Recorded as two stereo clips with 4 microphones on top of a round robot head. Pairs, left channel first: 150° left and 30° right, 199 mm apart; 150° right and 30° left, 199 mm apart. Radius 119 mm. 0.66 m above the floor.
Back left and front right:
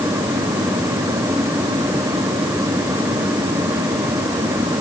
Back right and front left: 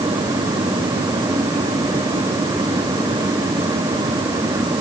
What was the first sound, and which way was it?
Only background noise.